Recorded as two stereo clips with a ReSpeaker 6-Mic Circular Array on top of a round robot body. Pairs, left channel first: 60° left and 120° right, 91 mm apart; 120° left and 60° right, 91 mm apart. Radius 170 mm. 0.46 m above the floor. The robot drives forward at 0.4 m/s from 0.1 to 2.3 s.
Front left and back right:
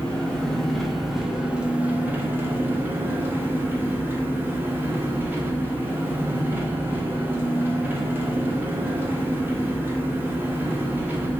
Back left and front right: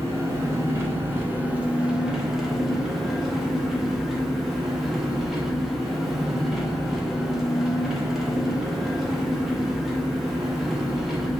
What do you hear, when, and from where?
0.0 s an engine running: 15° right, 1.1 m; by 11.4 s 145° right, 0.9 m